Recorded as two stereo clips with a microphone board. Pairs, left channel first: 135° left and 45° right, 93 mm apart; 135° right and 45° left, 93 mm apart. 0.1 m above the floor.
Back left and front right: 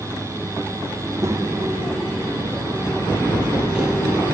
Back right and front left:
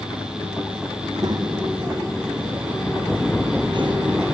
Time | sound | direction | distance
1.0 | a child speaking | 5° left | 3.5 m